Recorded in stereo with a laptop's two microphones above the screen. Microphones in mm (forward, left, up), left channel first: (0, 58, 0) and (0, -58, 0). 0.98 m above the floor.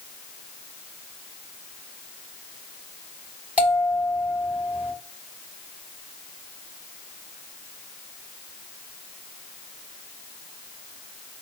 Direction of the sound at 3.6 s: 15° right (ahead or behind).